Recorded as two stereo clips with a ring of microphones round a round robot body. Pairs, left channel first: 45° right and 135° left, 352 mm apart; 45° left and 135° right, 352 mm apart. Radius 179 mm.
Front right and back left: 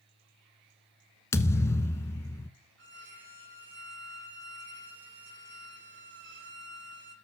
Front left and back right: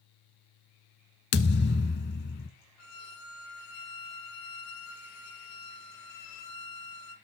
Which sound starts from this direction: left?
A violin, at 2.8 s.